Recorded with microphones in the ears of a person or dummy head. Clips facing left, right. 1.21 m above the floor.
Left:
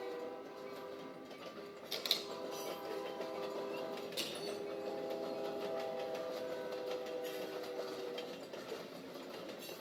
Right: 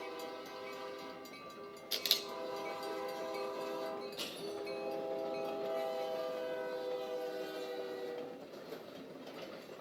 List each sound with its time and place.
1.9 s a camera shutter: 5° right (ahead or behind), 1.1 m
4.2 s crushing: 85° left, 6 m